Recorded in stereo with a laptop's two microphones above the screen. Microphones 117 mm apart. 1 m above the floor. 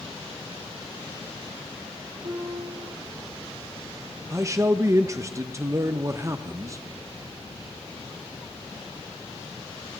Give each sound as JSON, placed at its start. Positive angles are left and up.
{"t": 2.2, "sound": "a piano", "side_deg": -60, "distance_m": 3.5}
{"t": 4.3, "sound": "a man speaking", "side_deg": -25, "distance_m": 0.6}